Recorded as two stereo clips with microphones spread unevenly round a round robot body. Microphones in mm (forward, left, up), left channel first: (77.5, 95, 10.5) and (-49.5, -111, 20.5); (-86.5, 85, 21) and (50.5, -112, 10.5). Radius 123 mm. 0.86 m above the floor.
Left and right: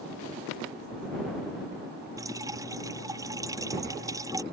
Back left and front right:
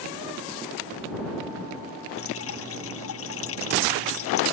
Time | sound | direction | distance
2.2 | dripping | 160° left | ?